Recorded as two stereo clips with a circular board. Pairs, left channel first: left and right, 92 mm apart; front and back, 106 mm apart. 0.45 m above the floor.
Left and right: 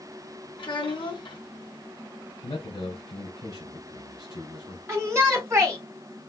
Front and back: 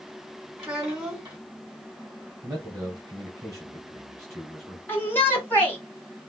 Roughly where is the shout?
Ahead right.